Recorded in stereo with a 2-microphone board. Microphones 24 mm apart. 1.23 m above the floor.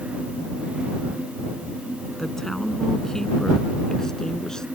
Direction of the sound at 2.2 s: 20° left (ahead or behind).